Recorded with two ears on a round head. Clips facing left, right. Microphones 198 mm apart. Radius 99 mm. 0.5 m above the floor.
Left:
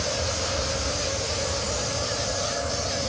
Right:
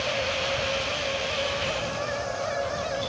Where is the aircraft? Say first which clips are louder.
Right 1 dB; 40° left (ahead or behind).